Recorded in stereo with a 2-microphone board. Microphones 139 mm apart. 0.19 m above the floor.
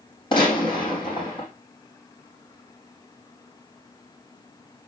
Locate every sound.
0.3 s a gunshot: 35° left (ahead or behind), 4.5 m